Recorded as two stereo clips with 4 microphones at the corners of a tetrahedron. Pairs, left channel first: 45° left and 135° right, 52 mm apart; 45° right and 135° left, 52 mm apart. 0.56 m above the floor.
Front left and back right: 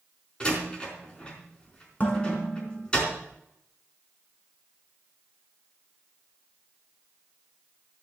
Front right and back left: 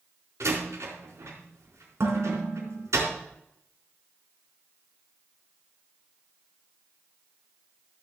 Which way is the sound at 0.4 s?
115° left.